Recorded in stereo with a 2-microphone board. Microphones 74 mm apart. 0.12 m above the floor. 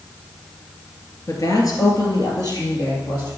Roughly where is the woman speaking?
Left.